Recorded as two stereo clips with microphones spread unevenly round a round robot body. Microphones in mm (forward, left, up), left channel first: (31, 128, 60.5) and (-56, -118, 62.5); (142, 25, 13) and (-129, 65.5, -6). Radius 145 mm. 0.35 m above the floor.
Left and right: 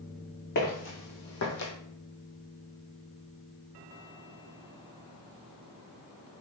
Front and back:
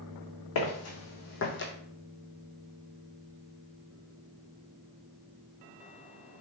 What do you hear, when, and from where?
0.6 s footsteps: 20° left, 1.6 m; by 1.7 s 40° left, 1.0 m